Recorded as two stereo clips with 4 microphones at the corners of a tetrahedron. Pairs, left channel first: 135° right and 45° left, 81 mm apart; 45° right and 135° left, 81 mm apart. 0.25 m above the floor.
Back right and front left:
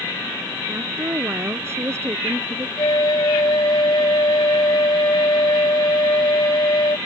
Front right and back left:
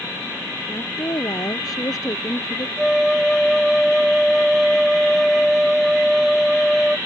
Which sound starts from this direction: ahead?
A woman speaking, at 0.7 s.